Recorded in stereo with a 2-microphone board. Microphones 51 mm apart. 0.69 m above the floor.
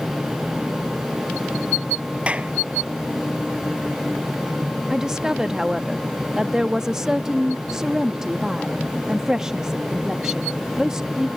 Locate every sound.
2.3 s a clap: 25° right (ahead or behind)
4.9 s a woman speaking: 10° right (ahead or behind)